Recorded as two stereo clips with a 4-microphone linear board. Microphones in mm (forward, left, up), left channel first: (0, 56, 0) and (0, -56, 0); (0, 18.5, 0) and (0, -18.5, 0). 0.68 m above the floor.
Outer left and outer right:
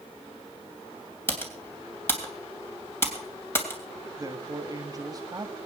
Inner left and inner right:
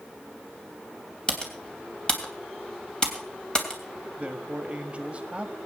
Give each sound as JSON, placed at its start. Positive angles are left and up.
{"t": 1.3, "sound": "typing on a keyboard", "side_deg": 20, "distance_m": 2.5}
{"t": 4.2, "sound": "a man speaking", "side_deg": -35, "distance_m": 1.3}